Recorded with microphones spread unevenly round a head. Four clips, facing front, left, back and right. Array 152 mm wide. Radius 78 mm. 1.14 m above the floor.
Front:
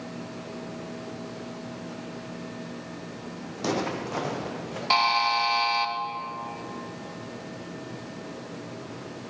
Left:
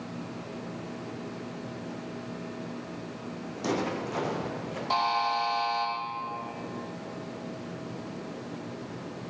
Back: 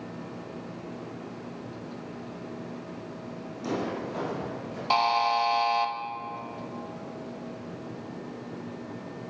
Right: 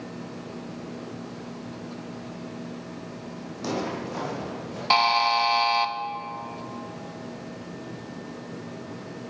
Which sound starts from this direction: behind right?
A buzzer, at 4.9 s.